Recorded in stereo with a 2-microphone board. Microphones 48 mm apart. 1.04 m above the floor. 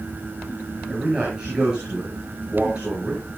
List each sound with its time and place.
0.9 s a man speaking: 15° right (ahead or behind), 8 m